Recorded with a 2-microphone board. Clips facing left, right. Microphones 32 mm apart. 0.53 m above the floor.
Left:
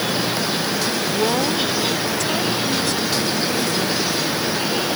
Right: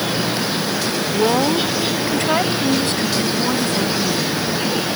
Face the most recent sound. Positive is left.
turn(degrees=-50)  # may be behind; listen again after turning